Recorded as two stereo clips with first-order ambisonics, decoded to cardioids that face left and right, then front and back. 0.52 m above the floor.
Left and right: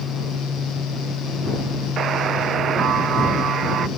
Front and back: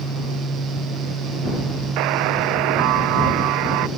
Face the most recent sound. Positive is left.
turn(degrees=-150)